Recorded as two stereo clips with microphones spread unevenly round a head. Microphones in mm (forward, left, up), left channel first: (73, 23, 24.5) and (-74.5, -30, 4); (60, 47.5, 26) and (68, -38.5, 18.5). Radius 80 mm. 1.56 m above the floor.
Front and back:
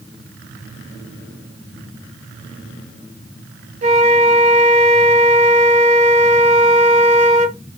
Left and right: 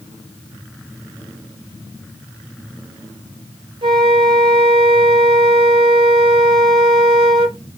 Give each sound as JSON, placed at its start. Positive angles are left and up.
{"t": 3.8, "sound": "a flute", "azimuth_deg": -115, "distance_m": 0.6}